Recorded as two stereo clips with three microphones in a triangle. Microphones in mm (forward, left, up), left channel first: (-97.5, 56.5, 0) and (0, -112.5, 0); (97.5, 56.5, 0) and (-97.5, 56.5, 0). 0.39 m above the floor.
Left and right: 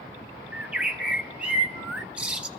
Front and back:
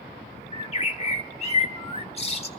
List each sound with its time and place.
0.5 s a bird: 20° left, 1.0 m